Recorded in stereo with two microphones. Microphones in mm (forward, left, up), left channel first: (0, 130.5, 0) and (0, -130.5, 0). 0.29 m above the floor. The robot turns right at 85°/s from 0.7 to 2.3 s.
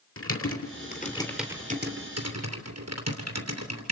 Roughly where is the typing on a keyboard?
Left.